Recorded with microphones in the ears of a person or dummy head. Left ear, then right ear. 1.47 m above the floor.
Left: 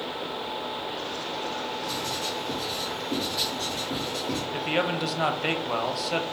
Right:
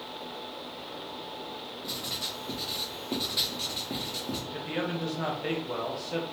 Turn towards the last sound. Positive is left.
turn(degrees=50)  # may be behind; listen again after turning